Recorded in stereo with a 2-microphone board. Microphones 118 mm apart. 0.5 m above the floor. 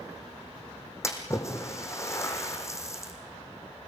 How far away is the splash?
About 4.5 m.